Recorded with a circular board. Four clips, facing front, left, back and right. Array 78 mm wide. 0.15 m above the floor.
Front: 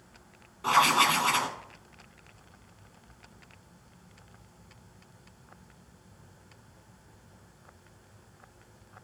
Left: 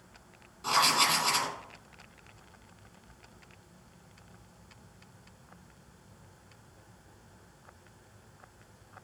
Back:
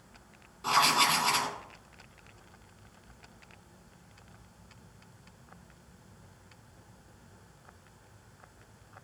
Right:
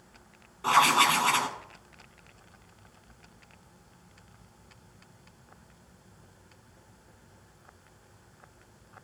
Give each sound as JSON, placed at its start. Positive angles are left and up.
{"t": 0.6, "sound": "writing", "azimuth_deg": -60, "distance_m": 1.1}